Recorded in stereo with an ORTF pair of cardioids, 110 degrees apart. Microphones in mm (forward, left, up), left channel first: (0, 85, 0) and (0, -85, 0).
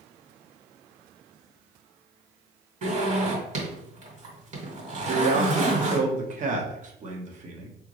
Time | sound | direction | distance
2.8 | a zipper | 45° right | 2.5 m
5.0 | a man speaking | 45° right | 1.3 m